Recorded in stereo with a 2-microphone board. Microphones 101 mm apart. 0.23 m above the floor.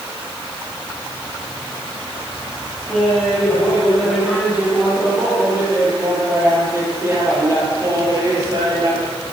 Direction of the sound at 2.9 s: 5° right (ahead or behind).